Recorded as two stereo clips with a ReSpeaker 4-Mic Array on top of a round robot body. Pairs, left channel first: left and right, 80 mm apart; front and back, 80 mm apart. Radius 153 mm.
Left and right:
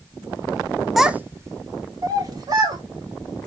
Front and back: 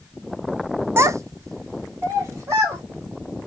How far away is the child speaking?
About 0.6 m.